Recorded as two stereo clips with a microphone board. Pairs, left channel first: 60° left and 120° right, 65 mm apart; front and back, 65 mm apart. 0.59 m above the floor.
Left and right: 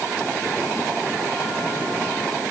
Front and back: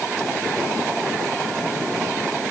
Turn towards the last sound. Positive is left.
No sound to turn to.